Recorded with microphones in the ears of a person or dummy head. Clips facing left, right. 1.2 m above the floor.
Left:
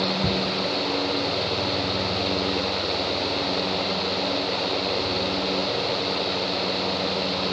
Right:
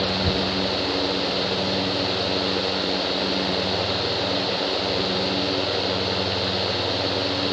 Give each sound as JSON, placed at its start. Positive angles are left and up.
{"t": 0.2, "sound": "ticking", "side_deg": 50, "distance_m": 1.0}